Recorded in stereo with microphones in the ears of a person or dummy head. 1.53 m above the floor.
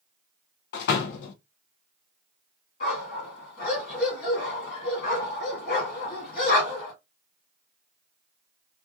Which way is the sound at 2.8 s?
50° left (ahead or behind).